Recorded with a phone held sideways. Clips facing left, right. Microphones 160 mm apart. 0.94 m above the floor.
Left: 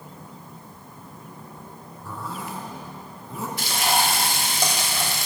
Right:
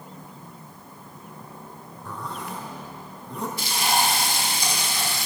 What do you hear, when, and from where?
2.0 s a zipper: 5° left (ahead or behind), 3 m
3.6 s frying: 70° left (ahead or behind), 2.5 m